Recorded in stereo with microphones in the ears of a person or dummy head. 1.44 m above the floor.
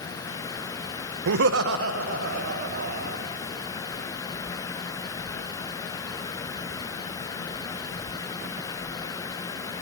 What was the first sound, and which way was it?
Laughter, 60° right (ahead or behind).